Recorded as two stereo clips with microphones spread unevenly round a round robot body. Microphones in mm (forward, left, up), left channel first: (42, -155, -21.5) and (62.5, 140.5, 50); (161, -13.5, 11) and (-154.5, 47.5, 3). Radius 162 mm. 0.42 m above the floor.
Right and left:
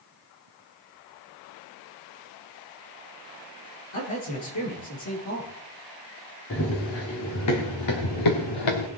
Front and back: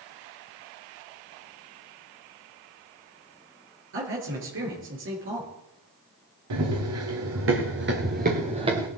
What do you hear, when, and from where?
3.9 s a man speaking: 135° right, 8 m
6.5 s running footsteps: 150° right, 4.5 m; by 8.9 s 110° right, 3 m